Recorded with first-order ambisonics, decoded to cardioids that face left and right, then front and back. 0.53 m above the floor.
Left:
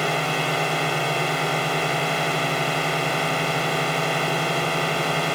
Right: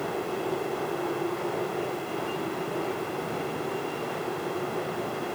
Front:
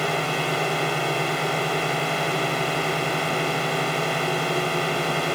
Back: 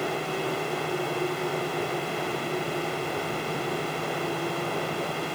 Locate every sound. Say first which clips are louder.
0.0 s a drone: left 8 dB, front 5 dB; 65° left